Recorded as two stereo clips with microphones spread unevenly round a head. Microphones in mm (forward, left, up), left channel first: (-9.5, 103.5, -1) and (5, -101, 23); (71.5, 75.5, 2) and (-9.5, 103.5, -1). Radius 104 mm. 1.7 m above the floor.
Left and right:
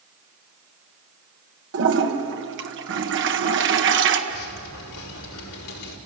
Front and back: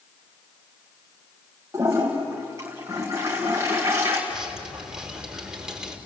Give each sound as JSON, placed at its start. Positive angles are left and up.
{"t": 1.7, "sound": "a toilet flushing", "azimuth_deg": -120, "distance_m": 1.6}
{"t": 4.3, "sound": "dripping", "azimuth_deg": 80, "distance_m": 5.0}